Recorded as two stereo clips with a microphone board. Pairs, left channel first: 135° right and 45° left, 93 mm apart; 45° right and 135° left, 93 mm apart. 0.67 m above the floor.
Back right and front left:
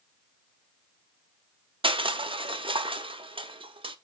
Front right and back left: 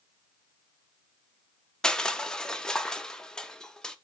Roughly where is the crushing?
Ahead left.